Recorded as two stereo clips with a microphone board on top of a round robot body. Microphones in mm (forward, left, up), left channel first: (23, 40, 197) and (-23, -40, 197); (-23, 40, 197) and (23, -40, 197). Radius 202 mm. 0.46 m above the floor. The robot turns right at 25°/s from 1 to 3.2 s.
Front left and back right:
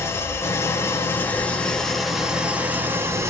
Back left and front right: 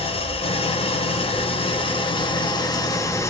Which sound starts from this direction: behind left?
An engine running, at 0.0 s.